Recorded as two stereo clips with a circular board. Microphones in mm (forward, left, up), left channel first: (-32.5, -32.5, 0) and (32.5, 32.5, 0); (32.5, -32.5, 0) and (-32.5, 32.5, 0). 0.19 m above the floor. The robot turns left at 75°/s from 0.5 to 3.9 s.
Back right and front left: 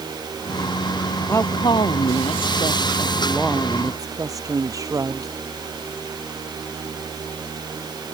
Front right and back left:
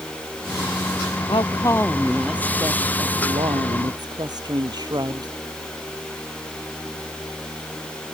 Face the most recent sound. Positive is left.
turn(degrees=95)